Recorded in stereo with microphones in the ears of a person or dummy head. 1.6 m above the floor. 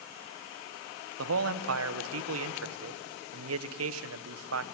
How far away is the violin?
No violin in this recording.